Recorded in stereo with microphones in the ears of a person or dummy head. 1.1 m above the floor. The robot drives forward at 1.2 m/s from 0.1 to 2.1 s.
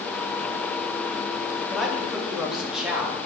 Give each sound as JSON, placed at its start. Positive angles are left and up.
{"t": 1.7, "sound": "a man speaking", "side_deg": 0, "distance_m": 1.6}